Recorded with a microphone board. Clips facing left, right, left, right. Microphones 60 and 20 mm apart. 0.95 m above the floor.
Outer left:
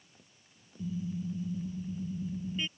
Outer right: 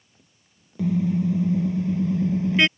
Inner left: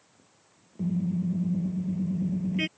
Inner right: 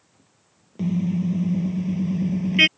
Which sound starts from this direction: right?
A car horn, at 0.8 s.